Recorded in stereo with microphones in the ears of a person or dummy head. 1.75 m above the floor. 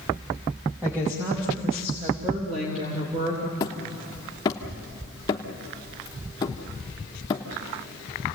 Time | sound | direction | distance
0.8 | a woman speaking | 5° right (ahead or behind) | 2.5 m
3.6 | hammering | 25° left (ahead or behind) | 1.1 m